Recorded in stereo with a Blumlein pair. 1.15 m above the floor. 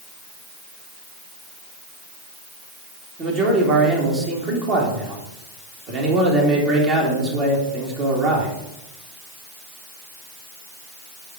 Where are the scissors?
No scissors in this recording.